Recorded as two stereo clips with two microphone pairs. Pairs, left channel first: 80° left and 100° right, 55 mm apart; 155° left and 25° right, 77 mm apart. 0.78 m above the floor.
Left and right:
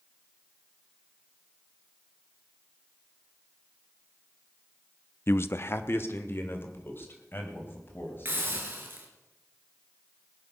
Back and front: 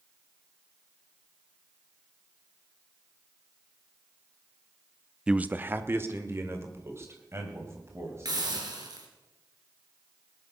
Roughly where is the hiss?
Ahead right.